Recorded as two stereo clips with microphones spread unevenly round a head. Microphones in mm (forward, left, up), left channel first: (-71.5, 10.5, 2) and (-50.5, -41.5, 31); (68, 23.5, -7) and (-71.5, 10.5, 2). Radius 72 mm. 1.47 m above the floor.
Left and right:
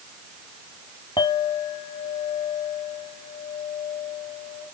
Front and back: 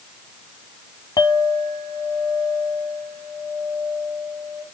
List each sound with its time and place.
1.2 s a clink: 65° left, 2 m